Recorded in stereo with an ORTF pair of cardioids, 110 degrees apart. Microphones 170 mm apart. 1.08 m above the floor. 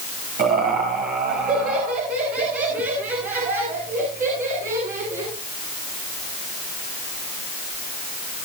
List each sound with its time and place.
0.4 s laughter: 60° right, 5.5 m; by 5.3 s 55° right, 9.5 m